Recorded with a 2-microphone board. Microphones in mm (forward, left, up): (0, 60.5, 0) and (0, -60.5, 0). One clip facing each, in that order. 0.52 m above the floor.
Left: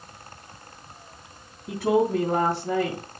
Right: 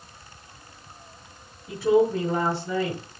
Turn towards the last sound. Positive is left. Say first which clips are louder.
# right 2 dB
turn(degrees=80)